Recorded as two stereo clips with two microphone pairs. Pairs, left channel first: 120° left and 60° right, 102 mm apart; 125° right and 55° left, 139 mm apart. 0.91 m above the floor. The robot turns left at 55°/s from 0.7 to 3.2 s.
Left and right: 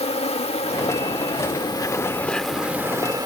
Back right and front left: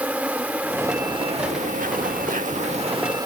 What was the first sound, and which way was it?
An insect, 130° left.